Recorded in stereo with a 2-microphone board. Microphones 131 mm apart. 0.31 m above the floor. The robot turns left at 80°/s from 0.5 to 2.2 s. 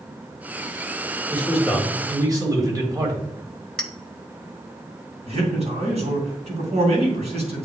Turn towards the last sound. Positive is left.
turn(degrees=-55)  # may be behind; listen again after turning